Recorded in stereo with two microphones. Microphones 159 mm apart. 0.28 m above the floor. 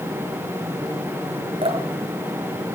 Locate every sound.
1.6 s dripping: 40° right (ahead or behind), 4 m